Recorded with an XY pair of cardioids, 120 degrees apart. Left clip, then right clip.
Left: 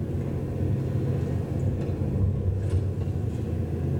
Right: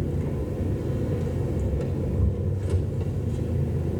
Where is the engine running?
60° right, 3.5 m.